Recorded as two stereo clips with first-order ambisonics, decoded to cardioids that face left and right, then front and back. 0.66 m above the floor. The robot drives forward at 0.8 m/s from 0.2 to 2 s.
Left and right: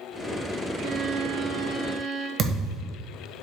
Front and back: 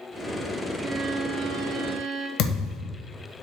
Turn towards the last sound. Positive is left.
turn(degrees=-35)